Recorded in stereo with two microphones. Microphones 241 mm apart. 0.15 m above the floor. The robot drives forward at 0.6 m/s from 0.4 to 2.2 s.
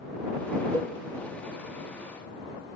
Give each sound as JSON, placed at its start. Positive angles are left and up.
{"t": 0.7, "sound": "a cowbell", "side_deg": 10, "distance_m": 0.8}